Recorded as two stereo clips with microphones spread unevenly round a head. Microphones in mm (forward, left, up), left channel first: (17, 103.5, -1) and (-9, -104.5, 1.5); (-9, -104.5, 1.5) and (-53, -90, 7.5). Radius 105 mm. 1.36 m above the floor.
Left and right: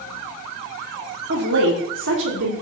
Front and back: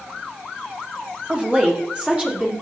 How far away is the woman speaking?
About 3.5 m.